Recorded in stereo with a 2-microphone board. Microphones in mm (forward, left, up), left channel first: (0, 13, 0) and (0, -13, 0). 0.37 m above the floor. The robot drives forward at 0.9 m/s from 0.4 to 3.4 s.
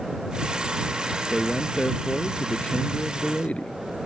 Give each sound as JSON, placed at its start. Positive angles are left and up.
{"t": 1.3, "sound": "a man speaking", "side_deg": 40}